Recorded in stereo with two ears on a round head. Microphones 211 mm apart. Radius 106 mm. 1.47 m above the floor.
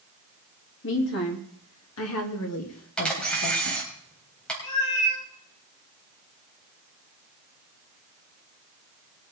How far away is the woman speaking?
About 3 m.